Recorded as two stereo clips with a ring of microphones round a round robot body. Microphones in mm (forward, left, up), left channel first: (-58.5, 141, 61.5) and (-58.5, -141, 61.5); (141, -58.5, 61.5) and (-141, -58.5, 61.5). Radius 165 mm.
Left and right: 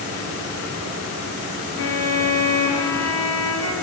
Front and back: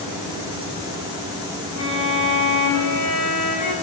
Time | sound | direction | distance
1.8 | a violin | 40° left | 8.5 m